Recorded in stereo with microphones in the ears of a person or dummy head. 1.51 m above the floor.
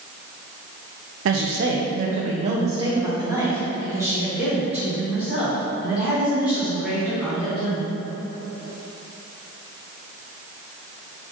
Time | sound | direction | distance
1.2 | a woman speaking | 80° right | 0.6 m